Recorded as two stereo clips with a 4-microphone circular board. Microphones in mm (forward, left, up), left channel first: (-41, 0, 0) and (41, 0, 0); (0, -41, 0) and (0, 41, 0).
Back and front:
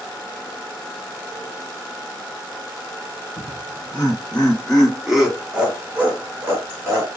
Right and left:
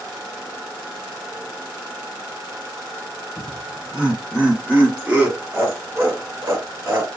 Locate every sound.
3.4 s laughter: straight behind, 1.3 m; by 7.1 s 45° left, 1.7 m